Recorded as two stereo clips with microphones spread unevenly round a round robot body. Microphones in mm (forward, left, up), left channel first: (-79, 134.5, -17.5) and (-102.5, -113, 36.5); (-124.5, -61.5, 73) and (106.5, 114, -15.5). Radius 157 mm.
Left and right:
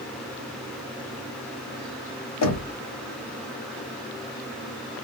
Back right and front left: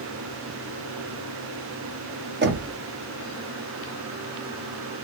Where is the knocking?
90° left, 1.5 m.